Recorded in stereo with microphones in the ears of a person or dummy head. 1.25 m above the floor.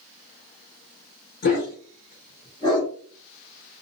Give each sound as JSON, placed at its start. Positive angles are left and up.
{"t": 1.4, "sound": "a dog barking", "side_deg": 50, "distance_m": 1.4}